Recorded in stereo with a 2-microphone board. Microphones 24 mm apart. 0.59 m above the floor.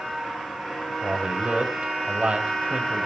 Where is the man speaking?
50° right (ahead or behind), 3 m.